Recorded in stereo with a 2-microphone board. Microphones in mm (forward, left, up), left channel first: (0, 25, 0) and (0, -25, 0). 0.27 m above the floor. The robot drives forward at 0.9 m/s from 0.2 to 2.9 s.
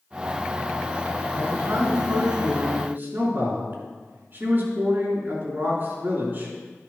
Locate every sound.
1.4 s a man speaking: 55° right (ahead or behind), 2.5 m; by 6.5 s 40° right (ahead or behind), 3 m